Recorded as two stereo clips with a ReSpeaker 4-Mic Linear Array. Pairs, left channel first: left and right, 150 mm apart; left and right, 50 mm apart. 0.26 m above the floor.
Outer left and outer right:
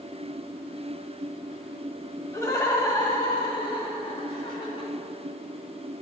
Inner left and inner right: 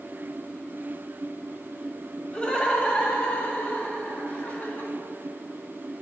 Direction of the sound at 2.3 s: 20° left (ahead or behind).